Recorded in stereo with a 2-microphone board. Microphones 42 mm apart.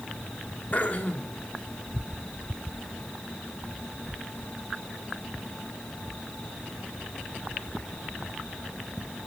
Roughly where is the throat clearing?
Left.